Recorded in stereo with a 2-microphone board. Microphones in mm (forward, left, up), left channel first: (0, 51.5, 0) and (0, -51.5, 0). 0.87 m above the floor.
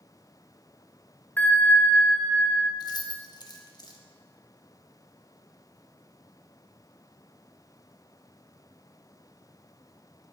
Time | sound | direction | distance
1.4 | a bell | 15° left (ahead or behind) | 0.7 m
2.8 | keys jangling | 40° left (ahead or behind) | 0.8 m